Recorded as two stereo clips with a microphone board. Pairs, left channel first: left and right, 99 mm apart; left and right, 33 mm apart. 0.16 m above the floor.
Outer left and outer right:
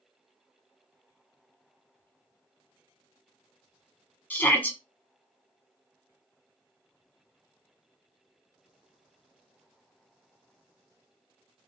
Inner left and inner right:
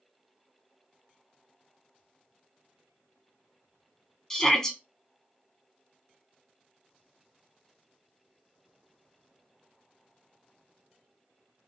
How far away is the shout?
About 1.0 m.